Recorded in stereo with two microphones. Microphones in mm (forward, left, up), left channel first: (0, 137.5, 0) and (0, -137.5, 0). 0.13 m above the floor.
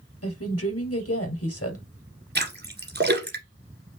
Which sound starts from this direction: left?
A woman speaking, at 0.2 s.